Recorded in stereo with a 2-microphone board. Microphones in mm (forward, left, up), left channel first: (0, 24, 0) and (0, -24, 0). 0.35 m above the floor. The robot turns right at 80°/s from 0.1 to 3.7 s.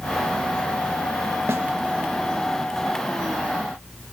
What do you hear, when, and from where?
1.5 s a snare drum: 70° right (ahead or behind), 0.8 m; by 1.6 s 75° right (ahead or behind), 0.8 m